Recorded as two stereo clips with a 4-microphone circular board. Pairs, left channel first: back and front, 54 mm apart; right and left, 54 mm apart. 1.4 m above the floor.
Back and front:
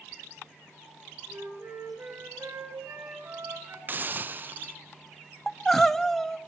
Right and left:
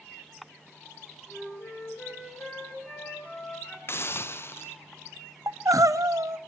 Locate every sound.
1.3 s a flute: 30° right, 9 m
3.9 s a hiss: 50° right, 0.6 m
5.5 s crying: 95° left, 0.7 m